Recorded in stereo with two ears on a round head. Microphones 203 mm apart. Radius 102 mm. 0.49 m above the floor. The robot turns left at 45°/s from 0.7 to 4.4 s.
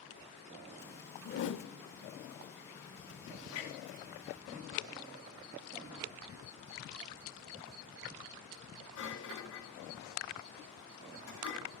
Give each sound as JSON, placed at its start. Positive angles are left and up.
{"t": 1.2, "sound": "a whoosh", "side_deg": 50, "distance_m": 0.8}
{"t": 3.5, "sound": "a clunk", "side_deg": 75, "distance_m": 9.5}